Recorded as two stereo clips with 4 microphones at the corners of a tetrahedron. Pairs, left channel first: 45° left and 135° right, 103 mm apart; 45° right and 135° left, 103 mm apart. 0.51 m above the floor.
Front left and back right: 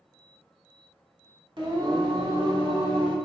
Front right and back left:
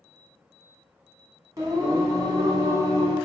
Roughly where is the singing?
Behind.